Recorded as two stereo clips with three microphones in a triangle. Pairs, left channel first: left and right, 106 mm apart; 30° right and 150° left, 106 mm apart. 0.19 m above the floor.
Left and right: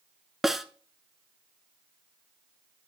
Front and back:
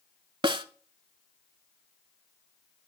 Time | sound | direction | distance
0.4 | a snare drum | 175° right | 0.6 m